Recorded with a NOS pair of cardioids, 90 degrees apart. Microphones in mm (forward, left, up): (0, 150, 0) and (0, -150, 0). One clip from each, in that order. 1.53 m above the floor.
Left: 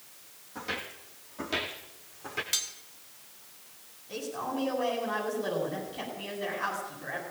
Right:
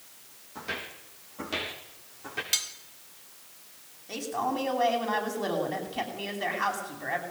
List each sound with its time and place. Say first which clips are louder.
0.6 s footsteps: even; 10° left, 5 m
2.5 s cutlery clinking: right 3 dB; 20° right, 2 m
4.1 s a man speaking: right 4 dB; 60° right, 9.5 m